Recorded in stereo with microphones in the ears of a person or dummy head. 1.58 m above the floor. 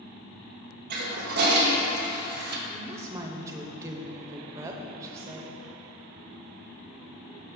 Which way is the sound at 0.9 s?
50° right (ahead or behind).